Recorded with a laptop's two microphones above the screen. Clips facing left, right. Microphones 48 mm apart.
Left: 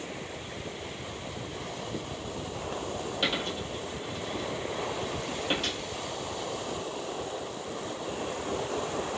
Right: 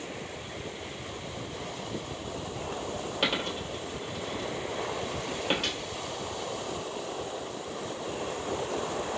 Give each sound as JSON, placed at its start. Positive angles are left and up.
{"t": 3.2, "sound": "a dropped coin", "side_deg": -35, "distance_m": 2.0}